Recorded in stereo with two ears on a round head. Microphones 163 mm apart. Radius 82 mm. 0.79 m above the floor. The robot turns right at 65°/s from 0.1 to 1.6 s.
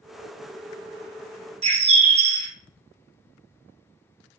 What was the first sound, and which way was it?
A bird, 35° right (ahead or behind).